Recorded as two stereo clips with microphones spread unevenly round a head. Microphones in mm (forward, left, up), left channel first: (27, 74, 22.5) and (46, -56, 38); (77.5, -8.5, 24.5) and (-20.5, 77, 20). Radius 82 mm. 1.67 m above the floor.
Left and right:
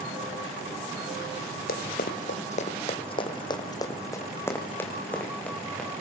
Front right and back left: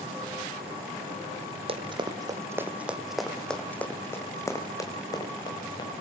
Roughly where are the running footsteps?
Left.